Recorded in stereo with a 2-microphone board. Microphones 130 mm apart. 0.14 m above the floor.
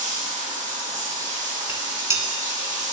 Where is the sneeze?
I don't hear a sneeze.